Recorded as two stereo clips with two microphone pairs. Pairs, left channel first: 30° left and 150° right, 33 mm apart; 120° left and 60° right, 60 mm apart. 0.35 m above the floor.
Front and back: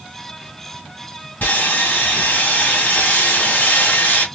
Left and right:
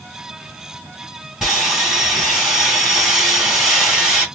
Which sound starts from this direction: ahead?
Sawing, at 1.4 s.